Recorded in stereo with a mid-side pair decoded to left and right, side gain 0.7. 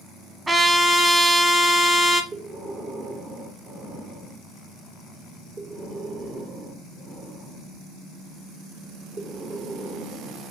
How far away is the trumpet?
About 1.5 m.